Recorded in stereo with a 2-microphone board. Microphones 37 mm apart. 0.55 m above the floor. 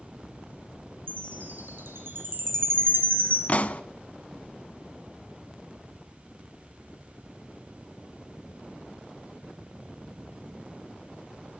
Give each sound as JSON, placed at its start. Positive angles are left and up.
{"t": 1.1, "sound": "a chime", "side_deg": -85, "distance_m": 4.0}
{"t": 3.5, "sound": "a pop", "side_deg": 40, "distance_m": 0.7}